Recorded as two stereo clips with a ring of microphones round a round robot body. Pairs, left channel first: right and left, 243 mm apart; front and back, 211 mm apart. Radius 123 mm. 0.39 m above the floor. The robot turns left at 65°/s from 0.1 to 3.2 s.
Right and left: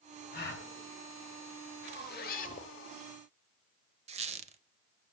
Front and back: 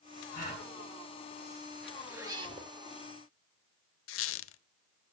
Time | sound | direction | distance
0.3 | a gasp | 40° right | 2.5 m
1.8 | a zipper | 85° right | 1.2 m
4.1 | a squeak | 25° left | 0.5 m